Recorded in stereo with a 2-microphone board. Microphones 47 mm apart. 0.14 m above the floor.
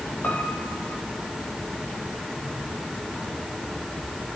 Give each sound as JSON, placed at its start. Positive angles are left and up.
{"t": 0.2, "sound": "a piano", "side_deg": 30, "distance_m": 4.0}